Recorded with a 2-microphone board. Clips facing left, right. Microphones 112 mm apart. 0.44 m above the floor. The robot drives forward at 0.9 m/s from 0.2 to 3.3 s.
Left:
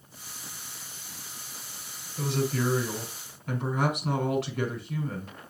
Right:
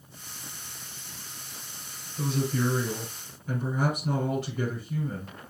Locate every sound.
2.2 s a woman speaking: 75° left (ahead or behind), 5 m